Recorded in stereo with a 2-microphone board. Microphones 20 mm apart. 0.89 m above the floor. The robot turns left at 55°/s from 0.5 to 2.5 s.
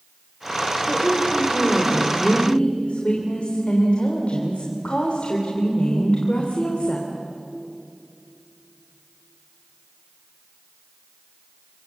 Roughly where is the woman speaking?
Behind.